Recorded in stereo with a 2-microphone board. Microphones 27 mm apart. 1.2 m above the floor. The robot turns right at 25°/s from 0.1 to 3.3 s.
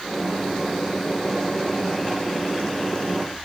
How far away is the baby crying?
I don't hear a baby crying.